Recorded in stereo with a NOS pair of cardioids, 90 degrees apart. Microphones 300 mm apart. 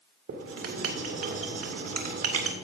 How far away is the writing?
About 2.5 m.